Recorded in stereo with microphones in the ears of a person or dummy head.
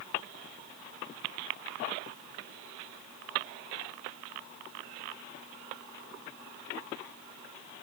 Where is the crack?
I don't hear a crack.